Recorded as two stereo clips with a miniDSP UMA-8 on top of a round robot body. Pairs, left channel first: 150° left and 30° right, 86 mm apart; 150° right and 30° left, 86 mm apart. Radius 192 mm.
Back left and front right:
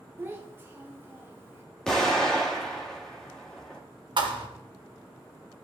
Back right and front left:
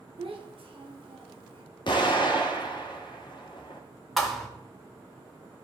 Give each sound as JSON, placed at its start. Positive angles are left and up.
{"t": 0.2, "sound": "a child speaking", "azimuth_deg": 35, "distance_m": 1.8}
{"t": 1.9, "sound": "an explosion", "azimuth_deg": -130, "distance_m": 2.0}
{"t": 4.2, "sound": "a thud", "azimuth_deg": -65, "distance_m": 1.4}